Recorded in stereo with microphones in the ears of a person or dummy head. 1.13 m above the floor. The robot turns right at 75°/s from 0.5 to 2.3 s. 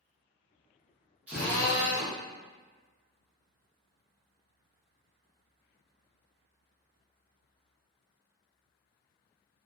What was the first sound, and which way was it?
A drill, 10° right.